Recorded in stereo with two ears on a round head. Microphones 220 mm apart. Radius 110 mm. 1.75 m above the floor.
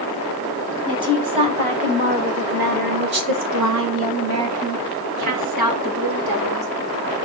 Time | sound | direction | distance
0.9 | a woman speaking | 20° right (ahead or behind) | 4 m